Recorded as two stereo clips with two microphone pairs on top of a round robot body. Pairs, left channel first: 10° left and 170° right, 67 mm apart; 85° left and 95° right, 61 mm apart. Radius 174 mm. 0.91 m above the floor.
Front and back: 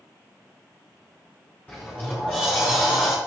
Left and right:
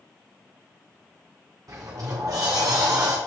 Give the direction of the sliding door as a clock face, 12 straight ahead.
2 o'clock.